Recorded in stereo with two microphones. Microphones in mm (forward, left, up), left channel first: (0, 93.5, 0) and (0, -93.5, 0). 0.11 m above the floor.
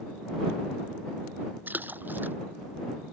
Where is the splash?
10° right (ahead or behind).